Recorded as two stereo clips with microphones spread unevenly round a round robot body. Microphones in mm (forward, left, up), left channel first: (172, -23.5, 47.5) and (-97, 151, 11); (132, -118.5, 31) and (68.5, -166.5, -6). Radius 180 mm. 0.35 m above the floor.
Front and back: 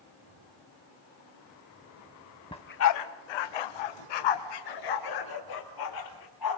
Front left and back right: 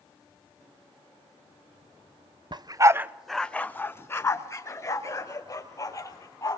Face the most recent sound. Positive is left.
turn(degrees=-10)